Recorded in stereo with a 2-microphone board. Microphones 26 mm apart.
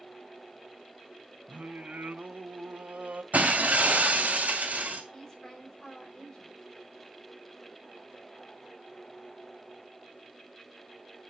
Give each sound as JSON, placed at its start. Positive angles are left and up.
{"t": 1.5, "sound": "singing", "side_deg": -80, "distance_m": 1.5}
{"t": 3.3, "sound": "breaking glass", "side_deg": -80, "distance_m": 3.0}
{"t": 5.1, "sound": "a woman speaking", "side_deg": 30, "distance_m": 4.0}